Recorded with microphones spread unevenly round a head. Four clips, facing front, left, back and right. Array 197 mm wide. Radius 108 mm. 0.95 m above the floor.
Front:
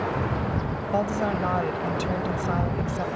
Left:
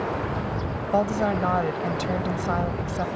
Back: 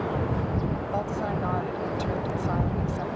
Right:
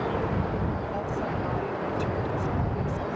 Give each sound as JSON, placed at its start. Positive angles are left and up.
{"t": 0.9, "sound": "a woman speaking", "azimuth_deg": 65}